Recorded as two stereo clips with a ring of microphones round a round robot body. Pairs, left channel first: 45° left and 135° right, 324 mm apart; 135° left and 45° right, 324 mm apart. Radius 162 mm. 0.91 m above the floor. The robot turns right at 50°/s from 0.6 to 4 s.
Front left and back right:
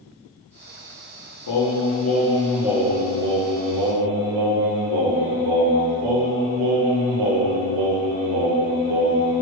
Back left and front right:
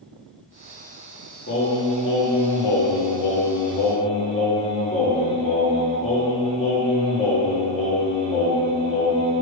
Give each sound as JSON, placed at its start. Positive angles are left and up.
{"t": 1.5, "sound": "singing", "azimuth_deg": 80, "distance_m": 1.5}